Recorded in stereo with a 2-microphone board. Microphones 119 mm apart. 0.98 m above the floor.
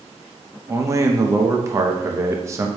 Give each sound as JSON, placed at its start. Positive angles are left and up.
{"t": 0.7, "sound": "a man speaking", "side_deg": -25, "distance_m": 0.7}